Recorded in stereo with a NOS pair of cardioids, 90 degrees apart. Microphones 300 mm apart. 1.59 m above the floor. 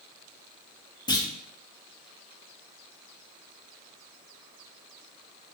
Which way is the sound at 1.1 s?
15° left.